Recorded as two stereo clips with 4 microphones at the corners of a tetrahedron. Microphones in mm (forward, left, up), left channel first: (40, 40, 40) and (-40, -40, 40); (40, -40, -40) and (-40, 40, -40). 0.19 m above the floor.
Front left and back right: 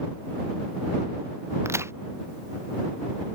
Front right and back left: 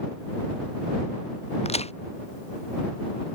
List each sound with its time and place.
1.6 s a crack: 70° right